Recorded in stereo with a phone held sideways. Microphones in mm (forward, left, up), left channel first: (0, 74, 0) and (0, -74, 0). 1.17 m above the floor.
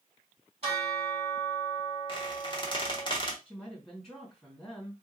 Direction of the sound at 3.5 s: 5° right (ahead or behind).